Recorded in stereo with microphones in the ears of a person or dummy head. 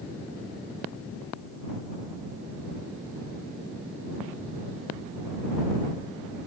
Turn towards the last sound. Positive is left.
No sound to turn to.